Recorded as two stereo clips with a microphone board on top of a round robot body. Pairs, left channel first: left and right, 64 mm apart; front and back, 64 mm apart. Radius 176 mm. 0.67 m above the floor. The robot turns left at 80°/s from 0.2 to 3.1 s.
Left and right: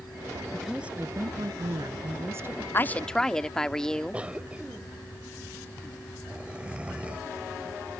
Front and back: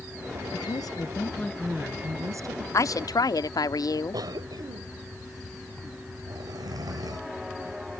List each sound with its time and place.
0.5 s a woman speaking: 5° left; by 2.6 s 160° right
2.7 s a woman speaking: 40° left; by 4.2 s 10° left
4.1 s a cough: 165° right